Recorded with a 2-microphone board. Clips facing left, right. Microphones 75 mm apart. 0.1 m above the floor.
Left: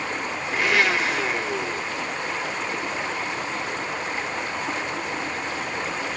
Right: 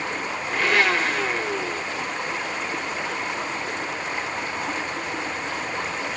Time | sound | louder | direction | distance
0.5 | a blender | right 1 dB | 5° left (ahead or behind) | 0.7 m